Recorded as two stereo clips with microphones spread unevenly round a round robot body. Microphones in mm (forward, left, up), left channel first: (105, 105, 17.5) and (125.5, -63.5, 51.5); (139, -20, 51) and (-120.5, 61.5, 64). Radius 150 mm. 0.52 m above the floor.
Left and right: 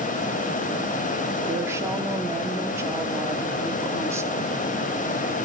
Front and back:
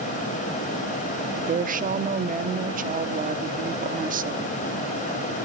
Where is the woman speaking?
165° right, 1.2 m.